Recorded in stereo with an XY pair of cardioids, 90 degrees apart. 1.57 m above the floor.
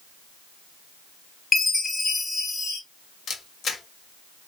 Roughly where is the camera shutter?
Ahead left.